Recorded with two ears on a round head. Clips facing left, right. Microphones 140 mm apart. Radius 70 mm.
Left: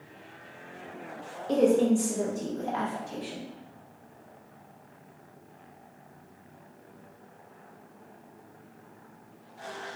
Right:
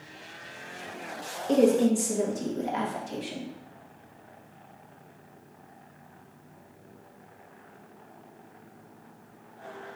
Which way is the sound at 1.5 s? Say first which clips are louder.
Right 1 dB; 20° right (ahead or behind).